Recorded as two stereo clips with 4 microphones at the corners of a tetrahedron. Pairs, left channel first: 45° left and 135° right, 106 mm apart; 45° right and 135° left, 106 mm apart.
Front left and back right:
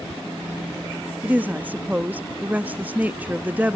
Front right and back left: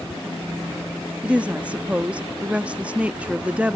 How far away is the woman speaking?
About 0.5 m.